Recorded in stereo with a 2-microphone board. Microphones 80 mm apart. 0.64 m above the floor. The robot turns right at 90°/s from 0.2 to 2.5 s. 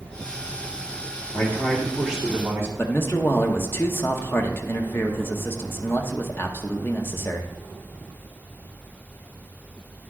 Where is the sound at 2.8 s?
30° left (ahead or behind), 0.8 m.